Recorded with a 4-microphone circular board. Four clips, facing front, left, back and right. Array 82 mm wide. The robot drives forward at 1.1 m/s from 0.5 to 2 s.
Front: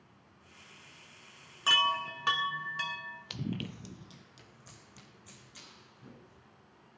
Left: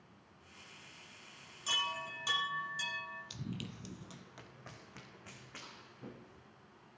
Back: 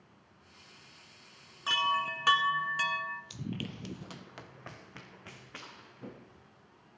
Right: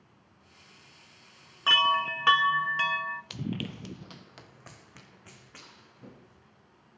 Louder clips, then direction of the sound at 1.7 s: Right 15 dB, even; 75° right.